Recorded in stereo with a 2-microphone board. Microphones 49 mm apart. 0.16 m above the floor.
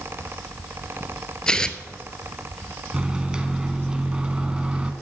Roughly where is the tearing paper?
Centre.